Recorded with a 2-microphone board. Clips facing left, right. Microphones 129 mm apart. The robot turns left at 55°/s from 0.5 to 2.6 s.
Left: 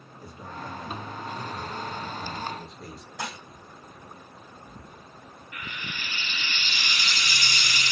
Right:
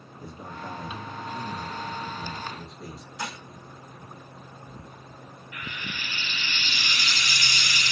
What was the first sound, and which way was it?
A man speaking, 25° right (ahead or behind).